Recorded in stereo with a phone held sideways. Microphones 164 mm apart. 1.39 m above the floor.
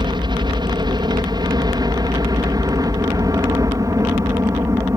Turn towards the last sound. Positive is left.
turn(degrees=-20)  # may be behind; listen again after turning